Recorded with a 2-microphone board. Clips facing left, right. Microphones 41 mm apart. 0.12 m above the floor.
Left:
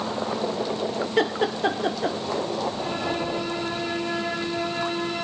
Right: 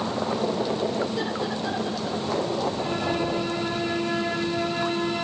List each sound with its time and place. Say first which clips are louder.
1.2 s laughter: left 5 dB; 60° left (ahead or behind), 3 m